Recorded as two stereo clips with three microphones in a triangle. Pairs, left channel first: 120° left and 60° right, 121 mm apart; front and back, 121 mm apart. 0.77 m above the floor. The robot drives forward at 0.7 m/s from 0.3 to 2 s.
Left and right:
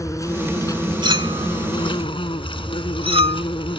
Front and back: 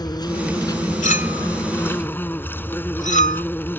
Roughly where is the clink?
Ahead.